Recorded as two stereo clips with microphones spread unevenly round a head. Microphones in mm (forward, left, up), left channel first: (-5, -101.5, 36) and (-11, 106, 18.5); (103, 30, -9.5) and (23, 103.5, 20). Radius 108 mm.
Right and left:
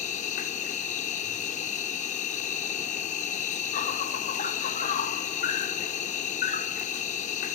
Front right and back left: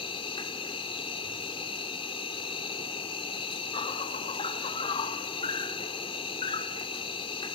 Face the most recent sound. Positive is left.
turn(degrees=-85)